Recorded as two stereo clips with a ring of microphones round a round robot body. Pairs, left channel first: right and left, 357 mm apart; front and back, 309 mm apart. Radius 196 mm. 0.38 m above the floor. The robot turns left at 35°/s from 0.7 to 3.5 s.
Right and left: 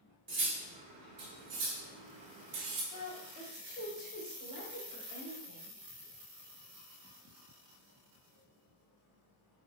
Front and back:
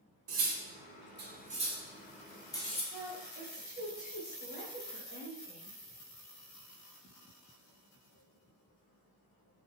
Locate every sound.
0.3 s cutlery clinking: 145° left, 1.0 m; by 2.8 s 70° left, 1.0 m
2.9 s a woman speaking: 95° right, 1.9 m; by 5.8 s 115° right, 1.9 m